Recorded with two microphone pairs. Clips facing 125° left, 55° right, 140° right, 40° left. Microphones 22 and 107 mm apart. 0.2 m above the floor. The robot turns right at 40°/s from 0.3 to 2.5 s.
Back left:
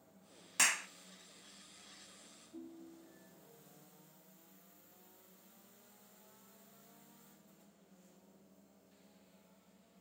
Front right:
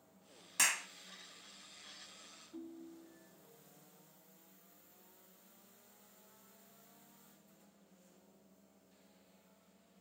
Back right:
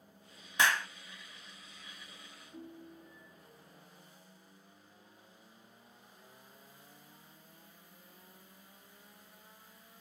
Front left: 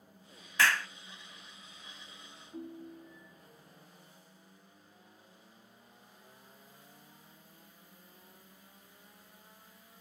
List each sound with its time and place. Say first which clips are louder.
0.6 s a clap: back left 1 dB, front left 1 dB; 145° right, 0.8 m; by 0.9 s 135° right, 0.8 m
2.5 s a ringtone: front right 1 dB, front left 5 dB; 25° right, 1.5 m